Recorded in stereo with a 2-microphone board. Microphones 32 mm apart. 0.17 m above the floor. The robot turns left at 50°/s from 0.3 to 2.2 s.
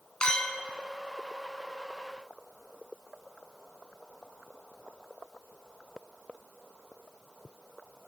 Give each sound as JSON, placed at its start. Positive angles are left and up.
{"t": 0.2, "sound": "a clink", "side_deg": 30, "distance_m": 0.8}